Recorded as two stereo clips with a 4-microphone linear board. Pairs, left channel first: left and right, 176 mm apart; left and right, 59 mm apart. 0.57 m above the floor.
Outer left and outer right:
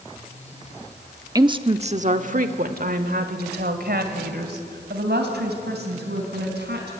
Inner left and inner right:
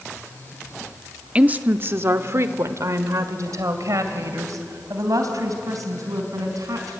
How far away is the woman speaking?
About 0.8 m.